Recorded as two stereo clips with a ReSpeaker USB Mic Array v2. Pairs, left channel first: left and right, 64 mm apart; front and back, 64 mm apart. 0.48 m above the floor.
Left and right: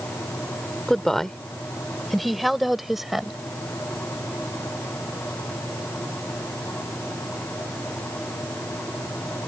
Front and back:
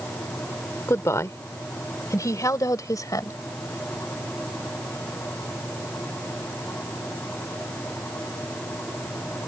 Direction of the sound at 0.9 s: 10° left.